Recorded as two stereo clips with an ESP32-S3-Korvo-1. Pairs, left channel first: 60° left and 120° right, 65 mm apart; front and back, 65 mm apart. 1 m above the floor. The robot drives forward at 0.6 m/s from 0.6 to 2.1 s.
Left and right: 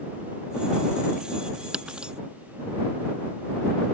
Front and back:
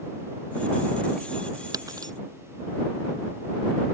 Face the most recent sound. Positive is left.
turn(degrees=165)